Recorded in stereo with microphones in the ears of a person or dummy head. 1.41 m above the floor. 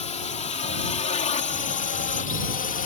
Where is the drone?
35° left (ahead or behind); by 2.9 s 40° left (ahead or behind).